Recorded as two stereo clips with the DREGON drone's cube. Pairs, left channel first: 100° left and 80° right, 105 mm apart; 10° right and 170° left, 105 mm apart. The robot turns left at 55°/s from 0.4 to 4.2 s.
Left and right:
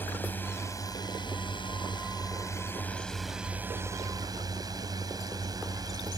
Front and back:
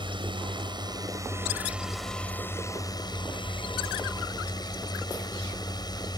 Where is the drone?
165° left; by 6.2 s 40° right.